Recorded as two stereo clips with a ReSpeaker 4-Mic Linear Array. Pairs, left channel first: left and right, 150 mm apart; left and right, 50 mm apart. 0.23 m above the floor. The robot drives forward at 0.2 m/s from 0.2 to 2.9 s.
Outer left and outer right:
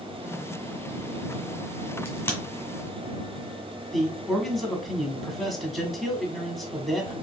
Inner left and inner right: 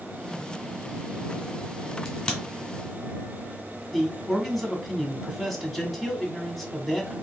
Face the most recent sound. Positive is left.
turn(degrees=0)  # may be behind; listen again after turning